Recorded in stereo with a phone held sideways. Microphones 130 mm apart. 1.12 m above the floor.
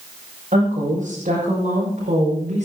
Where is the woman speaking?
85° right, 6.5 m; by 2.7 s 80° right, 5 m.